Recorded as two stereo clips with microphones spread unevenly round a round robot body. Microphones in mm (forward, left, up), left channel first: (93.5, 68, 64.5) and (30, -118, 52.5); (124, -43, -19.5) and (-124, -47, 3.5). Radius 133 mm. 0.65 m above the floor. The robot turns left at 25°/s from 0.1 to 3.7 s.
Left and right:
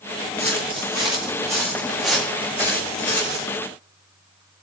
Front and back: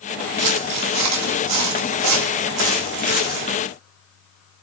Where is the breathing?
I don't hear breathing.